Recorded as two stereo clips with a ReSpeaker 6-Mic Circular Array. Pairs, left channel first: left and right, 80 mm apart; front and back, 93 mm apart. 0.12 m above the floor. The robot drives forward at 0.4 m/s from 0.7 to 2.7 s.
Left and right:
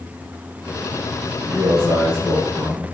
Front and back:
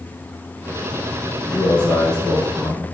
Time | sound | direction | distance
1.5 | a man speaking | 110° right | 2.5 m